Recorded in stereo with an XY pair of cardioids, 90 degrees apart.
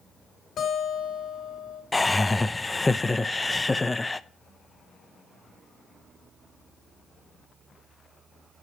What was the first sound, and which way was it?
A guitar, 65° left.